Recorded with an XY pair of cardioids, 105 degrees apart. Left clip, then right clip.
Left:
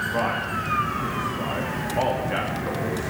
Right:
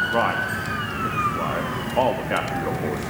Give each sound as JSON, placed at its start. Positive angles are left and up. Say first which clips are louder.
{"t": 0.1, "sound": "a man speaking", "louder": "right 3 dB", "azimuth_deg": -40, "distance_m": 2.0}